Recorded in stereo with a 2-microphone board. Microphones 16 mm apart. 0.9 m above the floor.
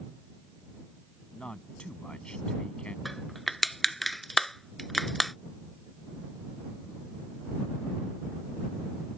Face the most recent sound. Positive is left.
turn(degrees=10)  # may be behind; listen again after turning